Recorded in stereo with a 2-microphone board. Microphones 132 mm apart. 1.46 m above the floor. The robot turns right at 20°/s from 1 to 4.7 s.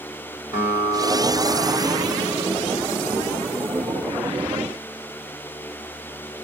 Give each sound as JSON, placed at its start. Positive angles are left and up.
{"t": 0.5, "sound": "a guitar", "azimuth_deg": 75, "distance_m": 5.0}